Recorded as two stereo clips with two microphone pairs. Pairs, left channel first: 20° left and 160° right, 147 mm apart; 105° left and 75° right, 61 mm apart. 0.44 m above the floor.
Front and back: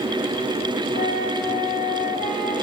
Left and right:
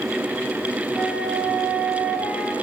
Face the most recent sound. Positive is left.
turn(degrees=-5)